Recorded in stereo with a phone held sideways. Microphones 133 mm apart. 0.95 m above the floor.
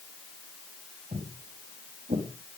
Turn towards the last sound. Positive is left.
turn(degrees=-65)  # may be behind; listen again after turning